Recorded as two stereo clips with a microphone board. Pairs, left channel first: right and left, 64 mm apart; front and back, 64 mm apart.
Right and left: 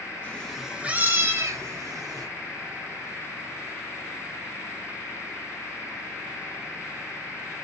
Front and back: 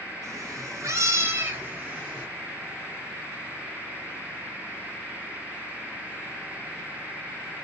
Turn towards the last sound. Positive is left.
turn(degrees=110)